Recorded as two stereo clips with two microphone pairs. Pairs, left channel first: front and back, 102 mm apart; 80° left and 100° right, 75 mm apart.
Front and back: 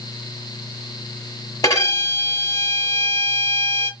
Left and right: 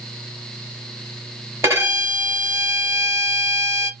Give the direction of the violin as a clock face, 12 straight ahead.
2 o'clock.